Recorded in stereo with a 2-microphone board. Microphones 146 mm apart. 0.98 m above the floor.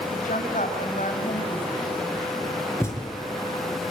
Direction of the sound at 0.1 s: 60° left (ahead or behind).